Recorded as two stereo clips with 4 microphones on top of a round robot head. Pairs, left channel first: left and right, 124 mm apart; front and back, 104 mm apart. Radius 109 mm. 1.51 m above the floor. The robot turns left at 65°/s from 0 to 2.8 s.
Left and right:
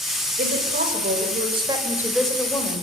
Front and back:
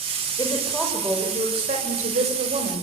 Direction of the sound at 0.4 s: 60° right.